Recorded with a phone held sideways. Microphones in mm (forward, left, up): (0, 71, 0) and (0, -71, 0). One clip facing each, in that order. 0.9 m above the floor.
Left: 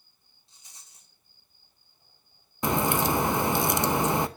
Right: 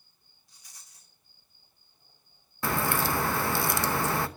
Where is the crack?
20° left (ahead or behind), 0.7 m.